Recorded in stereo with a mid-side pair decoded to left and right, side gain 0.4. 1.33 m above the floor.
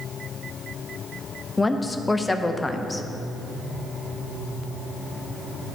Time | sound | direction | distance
1.6 | a woman speaking | 15° left | 0.7 m